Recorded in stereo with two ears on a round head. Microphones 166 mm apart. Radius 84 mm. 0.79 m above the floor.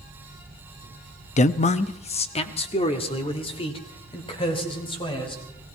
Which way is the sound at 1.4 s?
40° left (ahead or behind).